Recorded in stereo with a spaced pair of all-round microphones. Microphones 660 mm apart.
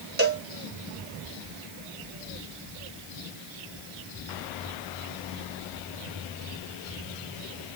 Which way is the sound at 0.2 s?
15° right (ahead or behind).